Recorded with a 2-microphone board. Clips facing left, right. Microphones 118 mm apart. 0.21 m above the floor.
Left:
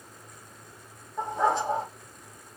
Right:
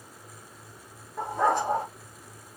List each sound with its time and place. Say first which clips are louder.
1.2 s a dog barking: right 1 dB; 50° right (ahead or behind), 3 m